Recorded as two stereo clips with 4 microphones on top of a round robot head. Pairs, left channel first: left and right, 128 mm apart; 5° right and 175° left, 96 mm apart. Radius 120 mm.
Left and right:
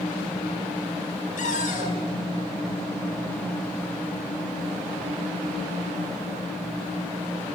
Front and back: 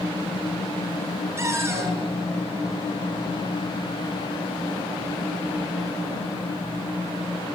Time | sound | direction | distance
1.4 | a cupboard door | 115° left | 7.5 m